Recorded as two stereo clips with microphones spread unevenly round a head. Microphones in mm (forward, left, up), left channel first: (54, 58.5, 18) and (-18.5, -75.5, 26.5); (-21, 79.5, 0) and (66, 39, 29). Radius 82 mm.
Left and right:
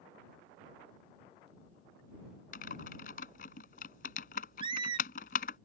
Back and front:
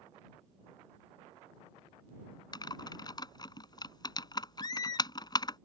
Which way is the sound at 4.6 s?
145° right.